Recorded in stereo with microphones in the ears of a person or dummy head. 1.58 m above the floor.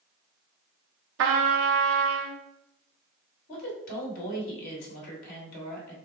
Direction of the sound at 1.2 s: 55° right (ahead or behind).